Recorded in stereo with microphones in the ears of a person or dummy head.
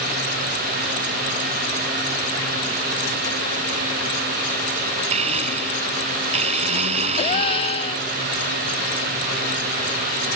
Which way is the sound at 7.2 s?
30° left (ahead or behind).